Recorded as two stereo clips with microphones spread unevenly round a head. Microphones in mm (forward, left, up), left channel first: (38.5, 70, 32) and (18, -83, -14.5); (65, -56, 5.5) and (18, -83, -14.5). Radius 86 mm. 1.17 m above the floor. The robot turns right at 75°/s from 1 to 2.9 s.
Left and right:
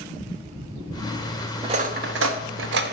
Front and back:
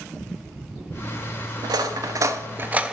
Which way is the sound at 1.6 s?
165° right.